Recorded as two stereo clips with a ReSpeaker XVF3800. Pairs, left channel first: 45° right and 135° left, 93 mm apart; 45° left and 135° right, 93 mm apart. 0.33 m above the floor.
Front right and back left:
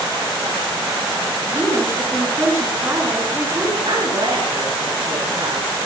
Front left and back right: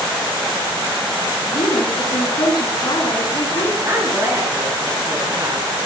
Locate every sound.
1.5 s a woman speaking: 75° left, 4.5 m
3.9 s a woman speaking: 165° left, 5 m